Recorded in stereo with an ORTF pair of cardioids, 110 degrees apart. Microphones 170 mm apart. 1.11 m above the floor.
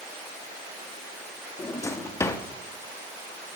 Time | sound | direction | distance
1.6 | a drawer | 15° left | 1.3 m